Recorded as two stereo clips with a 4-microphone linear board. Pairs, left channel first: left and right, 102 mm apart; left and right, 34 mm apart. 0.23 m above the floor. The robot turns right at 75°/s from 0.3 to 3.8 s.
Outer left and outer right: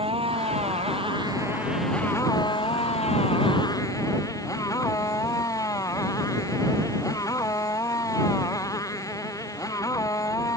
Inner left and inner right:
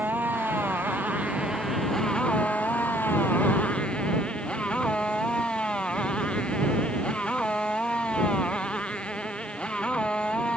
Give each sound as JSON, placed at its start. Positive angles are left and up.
{"t": 0.0, "sound": "a motorcycle", "azimuth_deg": -115}